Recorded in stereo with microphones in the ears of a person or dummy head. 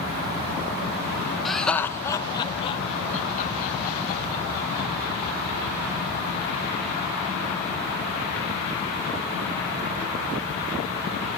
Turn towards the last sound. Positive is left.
turn(degrees=60)  # may be behind; listen again after turning